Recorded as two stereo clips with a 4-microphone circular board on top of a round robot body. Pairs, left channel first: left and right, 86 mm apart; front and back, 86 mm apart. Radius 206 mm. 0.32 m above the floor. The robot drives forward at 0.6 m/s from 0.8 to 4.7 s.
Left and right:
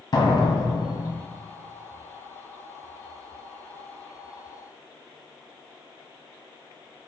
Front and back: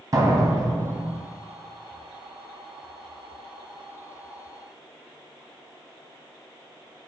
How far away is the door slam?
About 3 m.